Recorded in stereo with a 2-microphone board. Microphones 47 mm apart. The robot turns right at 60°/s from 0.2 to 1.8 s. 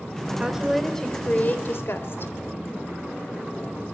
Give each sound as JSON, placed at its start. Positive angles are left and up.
{"t": 0.4, "sound": "a woman speaking", "azimuth_deg": -20, "distance_m": 2.5}